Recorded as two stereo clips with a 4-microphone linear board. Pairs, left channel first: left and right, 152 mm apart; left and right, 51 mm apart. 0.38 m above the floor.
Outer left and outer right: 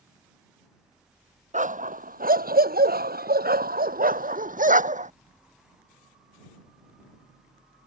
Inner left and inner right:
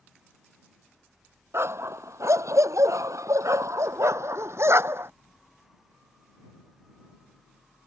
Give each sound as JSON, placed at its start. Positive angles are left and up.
{"t": 1.5, "sound": "a dog barking", "side_deg": -55}